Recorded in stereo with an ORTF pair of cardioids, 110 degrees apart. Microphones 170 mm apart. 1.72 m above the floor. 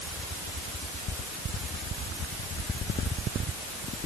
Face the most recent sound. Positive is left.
No sound to turn to.